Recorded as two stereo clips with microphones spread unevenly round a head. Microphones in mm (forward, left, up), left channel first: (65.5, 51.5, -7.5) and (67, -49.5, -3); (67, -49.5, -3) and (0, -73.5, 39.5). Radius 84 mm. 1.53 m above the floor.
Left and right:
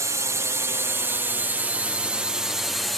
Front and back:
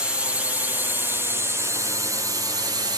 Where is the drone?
50° right; by 3.0 s 175° left.